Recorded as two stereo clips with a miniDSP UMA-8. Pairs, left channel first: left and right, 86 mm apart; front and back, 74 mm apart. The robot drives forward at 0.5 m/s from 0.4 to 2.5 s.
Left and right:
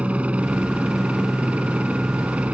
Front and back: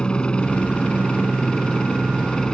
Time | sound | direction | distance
0.0 | a helicopter | 50° right | ?